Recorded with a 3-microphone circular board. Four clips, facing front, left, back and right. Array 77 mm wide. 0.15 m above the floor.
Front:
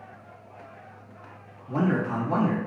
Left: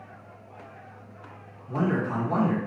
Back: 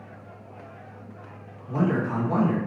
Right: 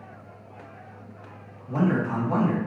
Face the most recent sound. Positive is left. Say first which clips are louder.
# right 2 dB, back 1 dB
turn(degrees=-30)